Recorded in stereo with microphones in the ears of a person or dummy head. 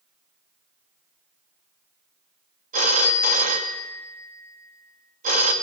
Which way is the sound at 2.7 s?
40° right (ahead or behind).